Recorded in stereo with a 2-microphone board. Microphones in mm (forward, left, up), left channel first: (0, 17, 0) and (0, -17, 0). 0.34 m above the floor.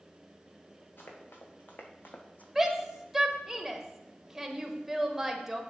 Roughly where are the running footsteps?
Left.